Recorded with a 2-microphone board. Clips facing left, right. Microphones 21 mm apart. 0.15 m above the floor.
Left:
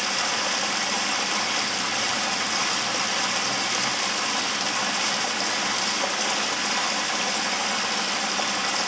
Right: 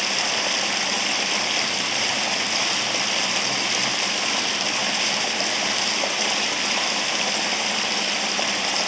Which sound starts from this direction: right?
Running water, at 0.0 s.